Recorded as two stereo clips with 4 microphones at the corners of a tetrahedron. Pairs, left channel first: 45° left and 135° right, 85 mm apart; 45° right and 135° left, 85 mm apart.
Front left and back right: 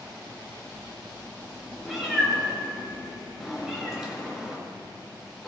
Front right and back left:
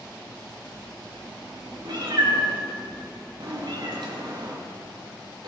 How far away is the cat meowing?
About 4 m.